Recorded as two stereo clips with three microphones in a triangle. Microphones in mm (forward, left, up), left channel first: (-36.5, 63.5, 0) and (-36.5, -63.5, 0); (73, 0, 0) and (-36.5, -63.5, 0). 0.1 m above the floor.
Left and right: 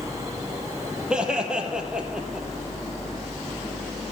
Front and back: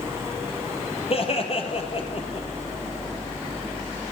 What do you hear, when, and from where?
1.1 s laughter: 5° right, 3 m